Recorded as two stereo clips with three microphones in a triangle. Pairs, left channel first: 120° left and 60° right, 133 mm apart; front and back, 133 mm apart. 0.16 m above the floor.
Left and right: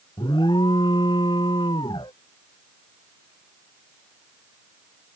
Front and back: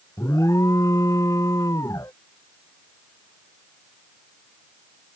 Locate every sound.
0.2 s an alarm: 65° left